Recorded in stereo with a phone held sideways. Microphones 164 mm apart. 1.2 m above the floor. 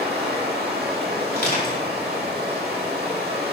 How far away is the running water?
About 1.7 m.